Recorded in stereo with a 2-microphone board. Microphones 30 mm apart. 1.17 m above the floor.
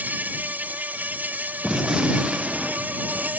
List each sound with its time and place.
0.0 s an insect: 85° right
1.6 s a gunshot: 20° right (ahead or behind)